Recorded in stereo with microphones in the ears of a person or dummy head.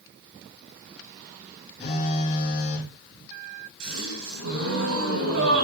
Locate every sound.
1.8 s a phone buzzing: 40° left (ahead or behind), 5 m
3.8 s a gasp: 80° right, 9.5 m